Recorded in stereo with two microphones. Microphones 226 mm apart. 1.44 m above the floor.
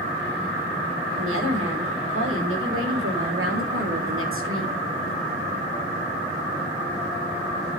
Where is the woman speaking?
70° right (ahead or behind), 6 m; by 4.8 s 65° right (ahead or behind), 2.5 m.